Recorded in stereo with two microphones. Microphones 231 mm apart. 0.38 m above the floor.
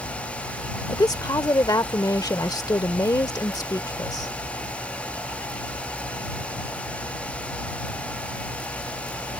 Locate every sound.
0.9 s a woman speaking: 15° left (ahead or behind)